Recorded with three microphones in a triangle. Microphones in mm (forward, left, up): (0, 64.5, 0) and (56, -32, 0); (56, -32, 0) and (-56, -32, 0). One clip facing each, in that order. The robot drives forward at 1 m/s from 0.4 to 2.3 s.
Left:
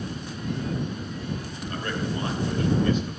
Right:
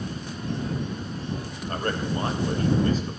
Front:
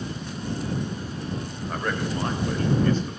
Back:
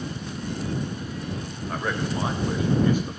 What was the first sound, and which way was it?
A man speaking, 90° right.